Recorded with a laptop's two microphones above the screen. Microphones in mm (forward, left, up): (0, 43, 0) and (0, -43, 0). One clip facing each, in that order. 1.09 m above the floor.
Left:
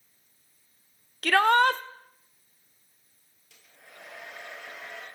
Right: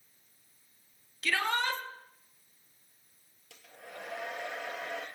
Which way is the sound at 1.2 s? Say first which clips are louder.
Left 11 dB; 60° left (ahead or behind).